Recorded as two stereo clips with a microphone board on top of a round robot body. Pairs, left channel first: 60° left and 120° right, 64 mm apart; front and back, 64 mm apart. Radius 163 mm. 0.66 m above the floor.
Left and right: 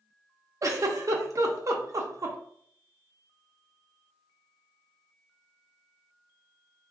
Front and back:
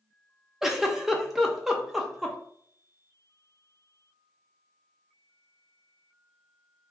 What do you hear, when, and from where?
0.6 s a giggle: 95° right, 0.6 m